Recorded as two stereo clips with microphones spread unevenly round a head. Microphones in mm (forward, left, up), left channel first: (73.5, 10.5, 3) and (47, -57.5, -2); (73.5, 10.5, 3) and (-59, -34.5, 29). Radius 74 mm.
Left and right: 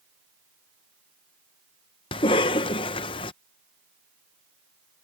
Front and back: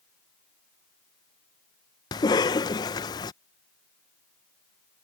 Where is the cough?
85° left.